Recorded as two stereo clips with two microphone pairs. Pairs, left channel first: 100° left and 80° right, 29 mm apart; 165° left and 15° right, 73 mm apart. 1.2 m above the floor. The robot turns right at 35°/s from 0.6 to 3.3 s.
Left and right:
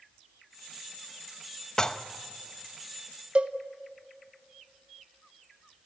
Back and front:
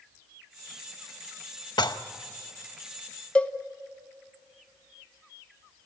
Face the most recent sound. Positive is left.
turn(degrees=-120)